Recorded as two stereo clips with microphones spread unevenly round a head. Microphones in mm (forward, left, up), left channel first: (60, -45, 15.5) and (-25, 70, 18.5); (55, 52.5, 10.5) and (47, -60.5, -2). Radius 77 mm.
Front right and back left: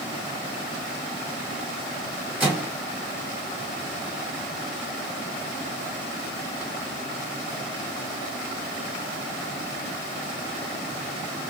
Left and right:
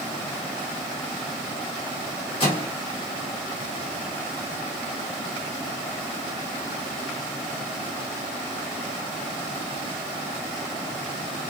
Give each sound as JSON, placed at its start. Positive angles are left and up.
{"t": 2.4, "sound": "a microwave", "azimuth_deg": 50, "distance_m": 1.5}